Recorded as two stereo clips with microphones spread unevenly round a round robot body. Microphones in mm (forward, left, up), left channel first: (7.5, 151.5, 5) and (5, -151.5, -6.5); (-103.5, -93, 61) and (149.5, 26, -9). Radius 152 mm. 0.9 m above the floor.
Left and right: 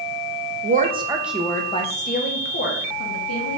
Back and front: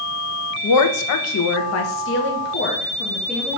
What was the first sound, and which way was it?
A woman speaking, 140° right.